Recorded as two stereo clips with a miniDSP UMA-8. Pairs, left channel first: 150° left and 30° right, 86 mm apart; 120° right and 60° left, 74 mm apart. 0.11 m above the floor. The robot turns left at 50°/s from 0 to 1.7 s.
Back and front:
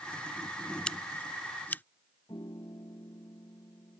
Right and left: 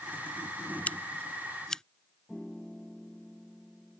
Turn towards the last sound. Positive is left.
turn(degrees=155)